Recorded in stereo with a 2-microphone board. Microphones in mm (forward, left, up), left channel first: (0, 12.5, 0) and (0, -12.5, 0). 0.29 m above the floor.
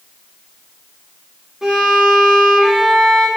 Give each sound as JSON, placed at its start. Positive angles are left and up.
{"t": 1.6, "sound": "a violin", "side_deg": -20, "distance_m": 7.5}